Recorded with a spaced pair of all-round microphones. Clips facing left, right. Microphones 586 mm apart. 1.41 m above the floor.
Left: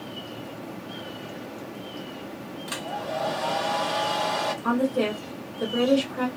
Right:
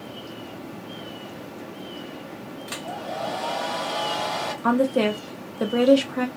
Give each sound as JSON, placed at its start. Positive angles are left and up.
{"t": 2.7, "sound": "a hair dryer", "side_deg": 35, "distance_m": 1.5}
{"t": 4.6, "sound": "a woman speaking", "side_deg": -80, "distance_m": 0.7}